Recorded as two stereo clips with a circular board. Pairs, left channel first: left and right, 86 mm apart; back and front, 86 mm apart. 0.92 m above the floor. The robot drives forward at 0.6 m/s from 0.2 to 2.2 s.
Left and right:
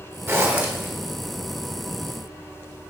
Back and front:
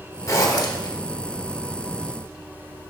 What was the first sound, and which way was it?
A zipper, 140° right.